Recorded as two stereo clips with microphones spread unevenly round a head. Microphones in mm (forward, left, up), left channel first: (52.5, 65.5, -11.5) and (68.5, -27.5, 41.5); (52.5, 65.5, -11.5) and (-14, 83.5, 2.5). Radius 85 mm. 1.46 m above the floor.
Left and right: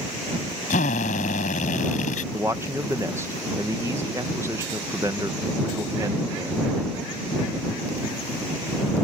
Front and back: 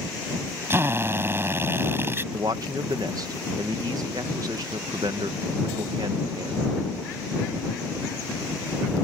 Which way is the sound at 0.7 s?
120° left.